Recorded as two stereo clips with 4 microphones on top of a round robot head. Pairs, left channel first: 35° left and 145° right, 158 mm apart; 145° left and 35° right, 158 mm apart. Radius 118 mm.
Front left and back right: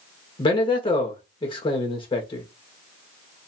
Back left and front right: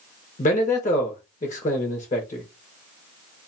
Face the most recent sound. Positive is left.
turn(degrees=95)